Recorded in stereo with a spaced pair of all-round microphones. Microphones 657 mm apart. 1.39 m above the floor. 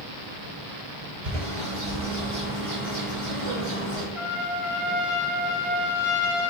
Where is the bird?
55° right (ahead or behind), 3 m.